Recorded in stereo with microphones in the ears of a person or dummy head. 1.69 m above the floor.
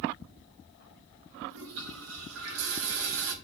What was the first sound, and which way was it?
A toilet flushing, 85° right.